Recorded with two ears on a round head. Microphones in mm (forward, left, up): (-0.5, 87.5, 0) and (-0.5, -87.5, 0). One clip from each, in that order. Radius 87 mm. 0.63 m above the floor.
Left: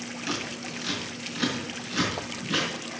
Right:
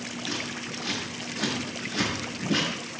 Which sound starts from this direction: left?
Scissors, at 0.3 s.